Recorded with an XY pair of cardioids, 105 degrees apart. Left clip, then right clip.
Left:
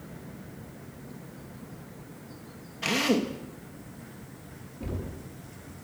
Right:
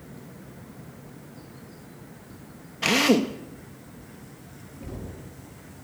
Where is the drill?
35° right, 1.9 m.